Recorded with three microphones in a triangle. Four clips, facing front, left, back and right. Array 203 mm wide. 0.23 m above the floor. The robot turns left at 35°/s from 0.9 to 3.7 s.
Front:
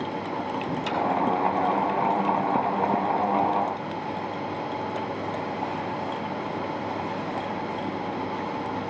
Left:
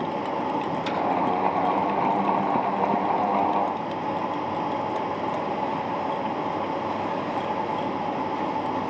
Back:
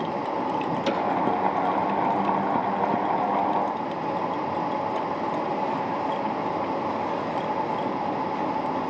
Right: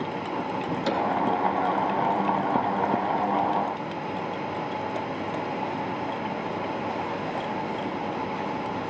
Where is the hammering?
150° right, 3 m.